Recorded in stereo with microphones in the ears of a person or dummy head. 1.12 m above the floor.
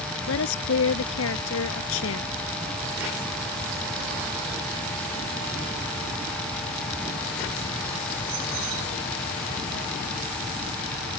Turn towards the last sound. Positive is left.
turn(degrees=80)